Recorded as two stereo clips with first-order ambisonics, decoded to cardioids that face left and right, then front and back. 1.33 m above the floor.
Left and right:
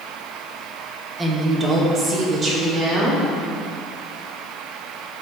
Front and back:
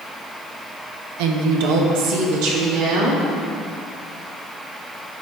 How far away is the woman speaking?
About 1.1 m.